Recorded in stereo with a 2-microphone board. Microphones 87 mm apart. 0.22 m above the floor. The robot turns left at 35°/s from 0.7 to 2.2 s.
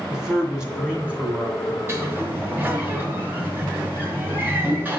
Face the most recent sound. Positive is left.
turn(degrees=-25)  # may be behind; listen again after turning